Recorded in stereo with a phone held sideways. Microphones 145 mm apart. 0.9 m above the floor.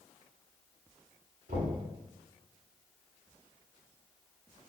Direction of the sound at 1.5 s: 85° right.